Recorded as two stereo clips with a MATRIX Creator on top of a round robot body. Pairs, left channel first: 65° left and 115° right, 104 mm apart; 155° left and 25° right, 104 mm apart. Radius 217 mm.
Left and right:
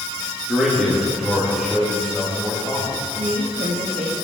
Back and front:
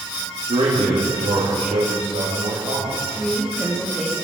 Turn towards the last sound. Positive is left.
turn(degrees=-105)